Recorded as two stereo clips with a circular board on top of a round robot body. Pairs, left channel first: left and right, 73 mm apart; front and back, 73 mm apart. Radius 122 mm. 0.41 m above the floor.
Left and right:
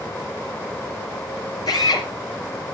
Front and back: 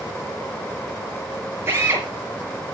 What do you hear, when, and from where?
1.7 s a drill: 120° left, 4.5 m